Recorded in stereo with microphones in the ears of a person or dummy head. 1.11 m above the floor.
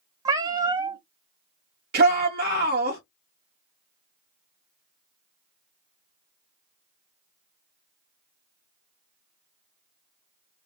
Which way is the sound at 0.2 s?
20° right (ahead or behind).